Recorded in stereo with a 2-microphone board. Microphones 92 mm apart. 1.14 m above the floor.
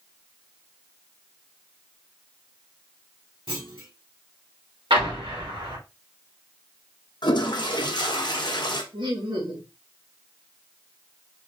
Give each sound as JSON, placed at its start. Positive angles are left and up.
{"t": 3.5, "sound": "a clunk", "side_deg": -75, "distance_m": 1.7}
{"t": 4.9, "sound": "an explosion", "side_deg": -75, "distance_m": 1.8}
{"t": 7.2, "sound": "a toilet flushing", "side_deg": 55, "distance_m": 0.7}
{"t": 8.9, "sound": "laughter", "side_deg": -65, "distance_m": 1.8}